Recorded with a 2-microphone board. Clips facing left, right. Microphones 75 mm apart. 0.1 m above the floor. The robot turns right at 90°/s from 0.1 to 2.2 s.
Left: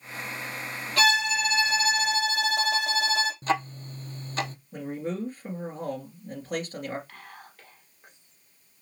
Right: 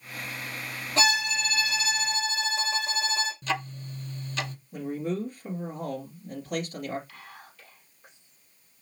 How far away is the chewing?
I don't hear chewing.